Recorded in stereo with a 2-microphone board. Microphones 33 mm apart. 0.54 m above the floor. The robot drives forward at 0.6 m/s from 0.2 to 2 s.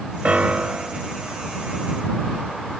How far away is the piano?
About 0.7 m.